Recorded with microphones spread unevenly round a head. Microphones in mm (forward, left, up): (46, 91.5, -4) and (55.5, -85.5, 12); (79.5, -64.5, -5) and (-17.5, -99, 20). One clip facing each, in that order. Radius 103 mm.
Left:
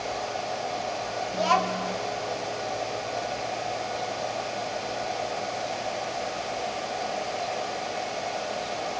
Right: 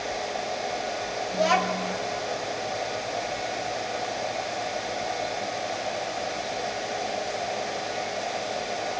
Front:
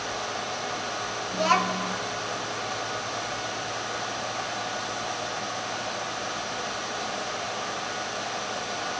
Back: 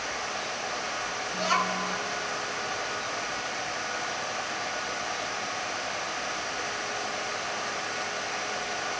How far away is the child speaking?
About 1.5 m.